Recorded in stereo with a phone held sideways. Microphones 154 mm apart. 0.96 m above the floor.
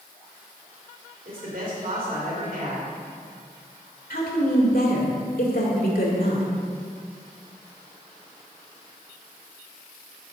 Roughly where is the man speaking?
Right.